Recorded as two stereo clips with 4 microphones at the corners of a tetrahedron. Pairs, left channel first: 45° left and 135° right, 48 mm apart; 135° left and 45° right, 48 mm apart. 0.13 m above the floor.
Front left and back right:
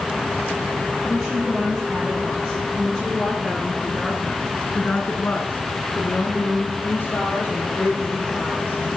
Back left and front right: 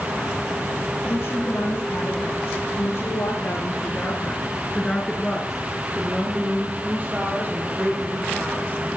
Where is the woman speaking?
165° left, 6 m; by 8.8 s straight ahead, 6.5 m.